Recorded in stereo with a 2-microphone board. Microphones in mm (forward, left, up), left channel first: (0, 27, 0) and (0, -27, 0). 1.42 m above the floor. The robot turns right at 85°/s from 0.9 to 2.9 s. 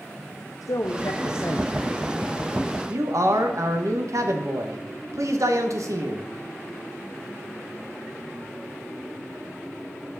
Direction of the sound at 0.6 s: 85° left.